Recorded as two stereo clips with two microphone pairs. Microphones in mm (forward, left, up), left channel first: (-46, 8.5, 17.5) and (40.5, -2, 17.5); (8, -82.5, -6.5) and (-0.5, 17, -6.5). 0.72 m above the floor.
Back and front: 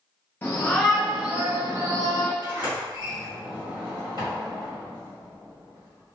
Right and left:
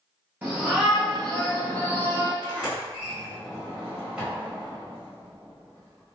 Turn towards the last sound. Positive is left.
turn(degrees=15)